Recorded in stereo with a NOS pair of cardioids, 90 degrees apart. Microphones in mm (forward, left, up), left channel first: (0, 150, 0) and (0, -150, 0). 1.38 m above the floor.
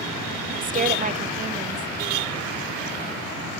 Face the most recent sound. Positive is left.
turn(degrees=-25)